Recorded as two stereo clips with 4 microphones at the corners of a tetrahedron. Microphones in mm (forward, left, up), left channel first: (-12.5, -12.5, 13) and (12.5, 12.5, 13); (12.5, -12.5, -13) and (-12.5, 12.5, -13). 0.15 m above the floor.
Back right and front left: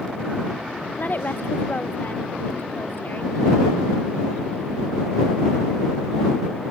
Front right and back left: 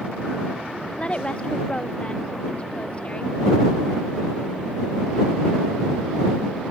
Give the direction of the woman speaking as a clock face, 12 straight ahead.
3 o'clock.